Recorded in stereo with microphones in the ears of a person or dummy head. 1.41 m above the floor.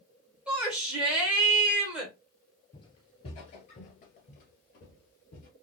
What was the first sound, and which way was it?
A shout, 5° right (ahead or behind).